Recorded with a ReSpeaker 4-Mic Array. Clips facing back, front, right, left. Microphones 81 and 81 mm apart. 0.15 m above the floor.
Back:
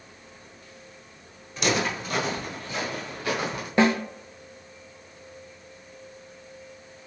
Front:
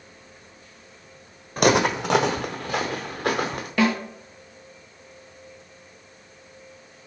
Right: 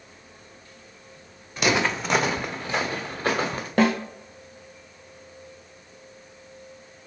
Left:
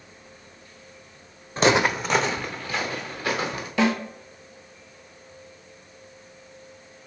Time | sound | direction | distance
1.6 | footsteps | 35° left | 0.5 m
3.8 | a snare drum | 125° right | 0.9 m